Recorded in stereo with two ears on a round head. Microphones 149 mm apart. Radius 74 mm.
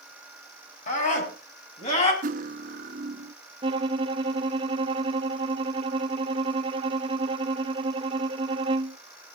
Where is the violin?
30° right (ahead or behind), 0.8 m.